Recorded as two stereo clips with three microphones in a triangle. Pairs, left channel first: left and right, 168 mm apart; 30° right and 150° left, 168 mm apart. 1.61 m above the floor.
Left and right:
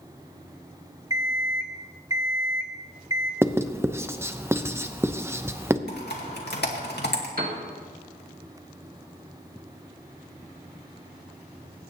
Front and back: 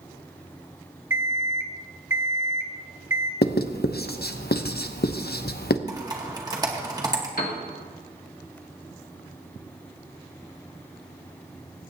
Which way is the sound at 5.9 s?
85° left.